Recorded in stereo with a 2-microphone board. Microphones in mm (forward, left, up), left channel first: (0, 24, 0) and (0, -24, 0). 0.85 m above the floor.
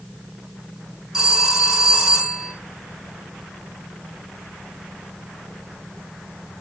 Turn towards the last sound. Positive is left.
turn(degrees=-10)  # may be behind; listen again after turning